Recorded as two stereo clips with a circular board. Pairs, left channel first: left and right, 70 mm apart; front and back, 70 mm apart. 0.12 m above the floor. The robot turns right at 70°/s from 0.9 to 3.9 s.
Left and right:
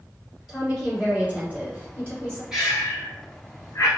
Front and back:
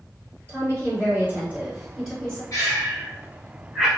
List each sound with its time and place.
0.5 s a woman speaking: 170° right, 1.6 m; by 2.4 s 65° right, 1.6 m
2.5 s breathing: 10° right, 1.2 m; by 3.9 s 85° left, 1.2 m